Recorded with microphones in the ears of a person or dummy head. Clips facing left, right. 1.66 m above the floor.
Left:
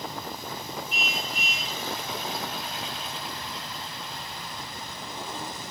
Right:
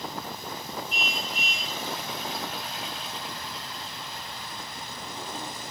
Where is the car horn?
Centre (ahead or behind).